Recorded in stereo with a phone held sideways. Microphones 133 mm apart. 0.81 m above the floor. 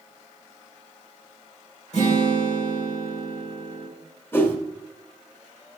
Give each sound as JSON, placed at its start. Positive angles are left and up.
{"t": 1.9, "sound": "a guitar", "side_deg": 60, "distance_m": 4.0}
{"t": 4.3, "sound": "a whoosh", "side_deg": 15, "distance_m": 1.5}